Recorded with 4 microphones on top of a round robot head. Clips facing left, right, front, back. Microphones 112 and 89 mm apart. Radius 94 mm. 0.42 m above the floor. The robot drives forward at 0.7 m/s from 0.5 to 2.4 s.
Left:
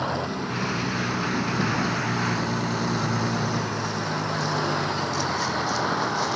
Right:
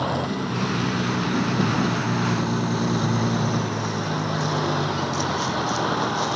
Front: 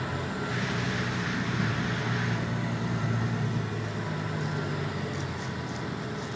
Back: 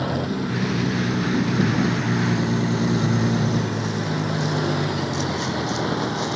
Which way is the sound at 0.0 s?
165° right.